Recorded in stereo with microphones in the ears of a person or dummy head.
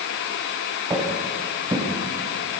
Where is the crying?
No crying in this recording.